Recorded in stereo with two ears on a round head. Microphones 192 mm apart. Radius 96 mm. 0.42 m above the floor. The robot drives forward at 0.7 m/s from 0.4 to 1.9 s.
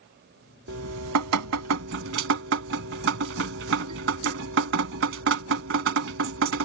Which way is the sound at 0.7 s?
65° right (ahead or behind).